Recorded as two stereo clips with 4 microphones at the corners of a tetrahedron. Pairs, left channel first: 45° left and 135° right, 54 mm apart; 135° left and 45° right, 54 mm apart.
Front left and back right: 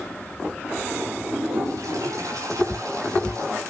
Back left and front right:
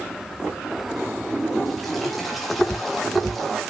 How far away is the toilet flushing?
About 6 m.